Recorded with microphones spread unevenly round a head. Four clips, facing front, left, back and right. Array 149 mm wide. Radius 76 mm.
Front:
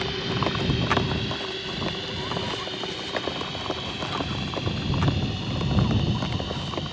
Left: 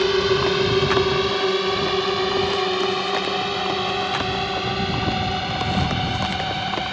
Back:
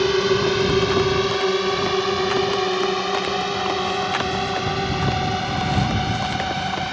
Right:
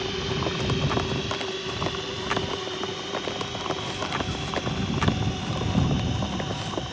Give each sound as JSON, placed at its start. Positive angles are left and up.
{"t": 0.0, "sound": "a drone", "azimuth_deg": 140}